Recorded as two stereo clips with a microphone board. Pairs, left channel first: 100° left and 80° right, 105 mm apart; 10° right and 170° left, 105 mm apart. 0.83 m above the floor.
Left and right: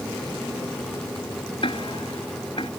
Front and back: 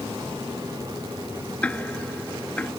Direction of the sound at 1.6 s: 70° left.